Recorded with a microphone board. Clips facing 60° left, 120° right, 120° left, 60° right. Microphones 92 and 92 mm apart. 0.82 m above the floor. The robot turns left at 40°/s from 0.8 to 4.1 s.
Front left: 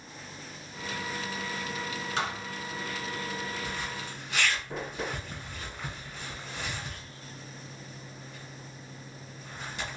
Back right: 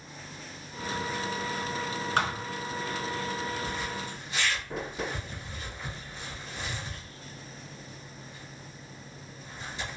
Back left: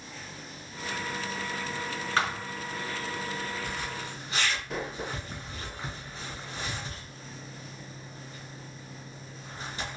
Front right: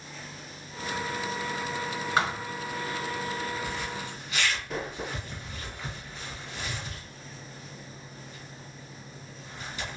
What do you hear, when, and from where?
2.2 s a thud: 135° right, 1.2 m; by 2.5 s 150° right, 1.2 m
3.6 s a zipper: 90° left, 2.0 m; by 10.0 s 70° left, 2.0 m